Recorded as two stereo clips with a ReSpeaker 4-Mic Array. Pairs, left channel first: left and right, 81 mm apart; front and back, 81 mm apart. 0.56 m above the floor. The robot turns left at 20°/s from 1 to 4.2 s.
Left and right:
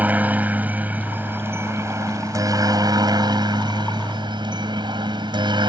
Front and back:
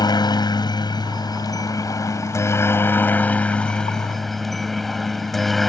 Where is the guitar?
I don't hear a guitar.